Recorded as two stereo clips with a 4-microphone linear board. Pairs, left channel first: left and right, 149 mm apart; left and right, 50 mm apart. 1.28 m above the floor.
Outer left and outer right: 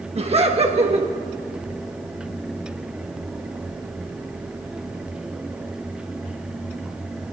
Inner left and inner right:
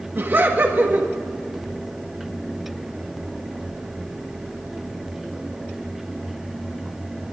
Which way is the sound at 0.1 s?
45° right (ahead or behind).